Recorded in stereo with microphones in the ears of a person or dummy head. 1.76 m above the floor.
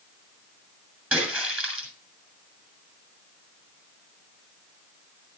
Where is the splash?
10° right (ahead or behind), 6.5 m.